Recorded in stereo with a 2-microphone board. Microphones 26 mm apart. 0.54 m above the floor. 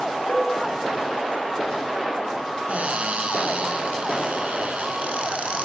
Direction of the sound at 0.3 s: 70° left (ahead or behind).